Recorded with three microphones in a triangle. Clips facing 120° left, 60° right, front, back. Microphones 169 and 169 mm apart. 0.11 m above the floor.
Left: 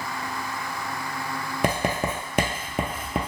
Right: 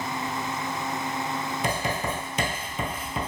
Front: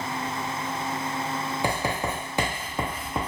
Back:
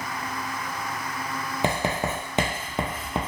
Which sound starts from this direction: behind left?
Writing, at 1.6 s.